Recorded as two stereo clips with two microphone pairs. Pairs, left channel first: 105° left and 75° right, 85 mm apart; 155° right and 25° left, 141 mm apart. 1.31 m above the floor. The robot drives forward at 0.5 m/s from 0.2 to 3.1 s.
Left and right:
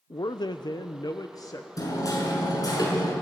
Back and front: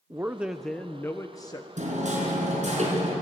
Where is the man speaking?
100° left, 0.6 m; by 1.7 s 150° left, 1.0 m.